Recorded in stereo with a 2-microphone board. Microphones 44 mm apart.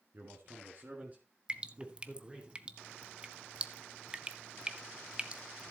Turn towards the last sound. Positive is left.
turn(degrees=-25)  # may be behind; listen again after turning